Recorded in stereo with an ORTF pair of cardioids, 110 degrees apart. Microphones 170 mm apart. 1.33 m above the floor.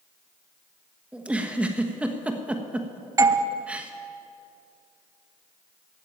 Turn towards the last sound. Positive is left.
turn(degrees=-20)